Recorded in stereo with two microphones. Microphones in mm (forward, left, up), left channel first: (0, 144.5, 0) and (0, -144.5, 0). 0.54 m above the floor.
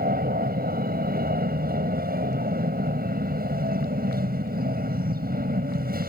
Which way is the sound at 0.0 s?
30° right (ahead or behind).